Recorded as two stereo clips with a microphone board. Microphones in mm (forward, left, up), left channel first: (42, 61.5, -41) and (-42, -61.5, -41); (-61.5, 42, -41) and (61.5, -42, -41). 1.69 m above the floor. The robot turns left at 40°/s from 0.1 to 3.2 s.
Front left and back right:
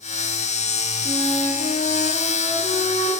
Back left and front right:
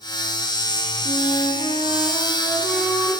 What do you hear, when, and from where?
1.1 s a flute: 115° left, 1.5 m; by 3.1 s 30° left, 1.5 m